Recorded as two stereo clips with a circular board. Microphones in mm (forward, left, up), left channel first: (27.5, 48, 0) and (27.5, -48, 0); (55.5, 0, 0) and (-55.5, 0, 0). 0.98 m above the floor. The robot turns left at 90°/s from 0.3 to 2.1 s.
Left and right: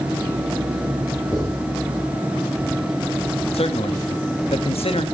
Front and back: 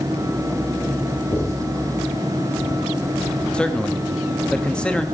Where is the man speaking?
85° left, 1.1 m.